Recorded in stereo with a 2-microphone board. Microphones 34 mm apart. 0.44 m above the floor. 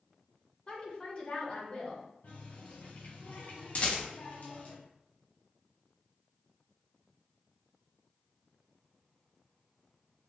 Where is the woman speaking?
35° left (ahead or behind), 1.7 m.